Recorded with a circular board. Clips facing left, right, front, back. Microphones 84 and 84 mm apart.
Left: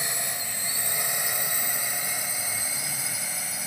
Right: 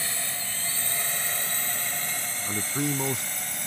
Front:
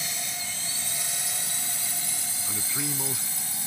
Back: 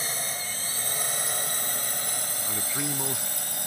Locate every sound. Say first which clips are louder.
0.0 s a drone: left 1 dB, back 3 dB; 155° left; by 3.7 s 175° left
2.5 s a man speaking: right 7 dB, back 1 dB; 100° right